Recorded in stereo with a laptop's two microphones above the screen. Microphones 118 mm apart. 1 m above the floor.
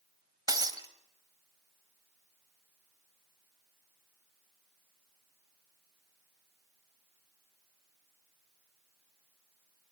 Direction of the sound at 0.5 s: 35° right (ahead or behind).